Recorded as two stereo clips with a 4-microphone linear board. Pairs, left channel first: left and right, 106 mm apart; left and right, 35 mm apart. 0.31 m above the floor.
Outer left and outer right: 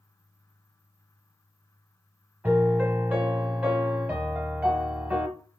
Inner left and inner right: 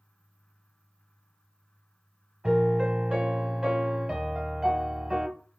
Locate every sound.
2.4 s a piano: 15° right (ahead or behind), 0.9 m